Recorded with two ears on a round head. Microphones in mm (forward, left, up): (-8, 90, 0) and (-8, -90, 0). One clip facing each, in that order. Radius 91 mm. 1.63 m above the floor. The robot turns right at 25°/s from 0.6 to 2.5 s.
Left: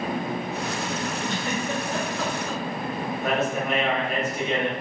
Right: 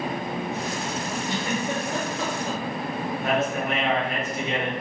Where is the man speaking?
90° left, 1.7 m.